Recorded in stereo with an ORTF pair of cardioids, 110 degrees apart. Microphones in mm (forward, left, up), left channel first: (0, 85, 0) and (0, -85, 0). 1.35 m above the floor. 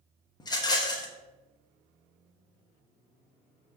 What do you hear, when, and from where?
0.4 s a rattle: 25° left, 0.7 m